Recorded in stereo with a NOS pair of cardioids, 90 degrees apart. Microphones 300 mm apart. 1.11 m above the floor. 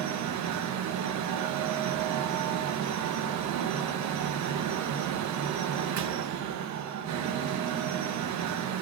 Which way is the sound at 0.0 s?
65° right.